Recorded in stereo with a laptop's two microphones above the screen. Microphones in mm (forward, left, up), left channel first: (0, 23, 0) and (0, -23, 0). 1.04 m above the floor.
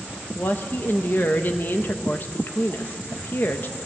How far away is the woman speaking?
About 1.1 m.